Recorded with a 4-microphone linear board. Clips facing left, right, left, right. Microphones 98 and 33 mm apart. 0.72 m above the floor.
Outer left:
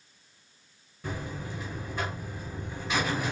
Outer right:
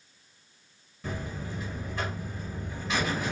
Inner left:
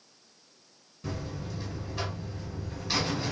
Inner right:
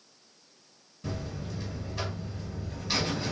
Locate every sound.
1.0 s a buzzer: 10° left (ahead or behind), 1.8 m